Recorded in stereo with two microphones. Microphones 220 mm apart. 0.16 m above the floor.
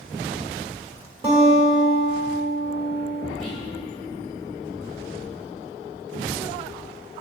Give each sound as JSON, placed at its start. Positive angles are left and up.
{"t": 1.2, "sound": "a guitar", "side_deg": -25, "distance_m": 1.1}
{"t": 3.4, "sound": "whispering", "side_deg": 0, "distance_m": 1.8}